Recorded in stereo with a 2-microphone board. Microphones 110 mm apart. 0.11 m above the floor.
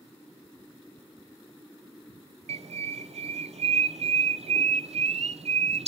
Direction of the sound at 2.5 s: 75° right (ahead or behind).